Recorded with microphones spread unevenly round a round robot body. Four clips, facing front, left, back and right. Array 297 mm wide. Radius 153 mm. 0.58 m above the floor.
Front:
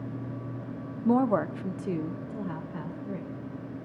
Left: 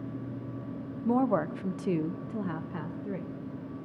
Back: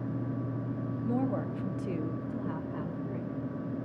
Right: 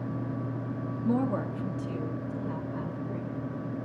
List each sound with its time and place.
1.1 s a woman speaking: 5° right, 0.8 m; by 3.3 s 120° left, 1.7 m